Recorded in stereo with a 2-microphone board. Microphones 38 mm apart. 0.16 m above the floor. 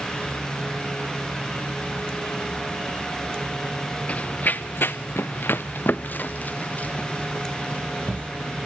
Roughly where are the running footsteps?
Left.